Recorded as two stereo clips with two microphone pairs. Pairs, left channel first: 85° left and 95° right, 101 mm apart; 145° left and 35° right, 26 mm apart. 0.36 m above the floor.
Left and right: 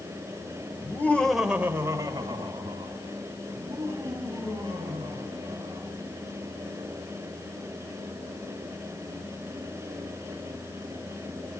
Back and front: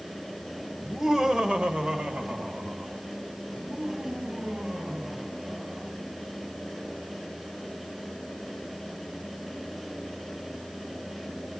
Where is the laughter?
50° left, 1.5 m; by 5.9 s 75° right, 7 m.